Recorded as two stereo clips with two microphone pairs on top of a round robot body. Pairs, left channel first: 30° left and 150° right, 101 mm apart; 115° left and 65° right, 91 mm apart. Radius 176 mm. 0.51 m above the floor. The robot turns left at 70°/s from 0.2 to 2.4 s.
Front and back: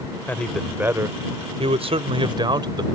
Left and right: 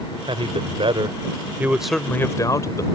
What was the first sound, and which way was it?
A man speaking, 40° right.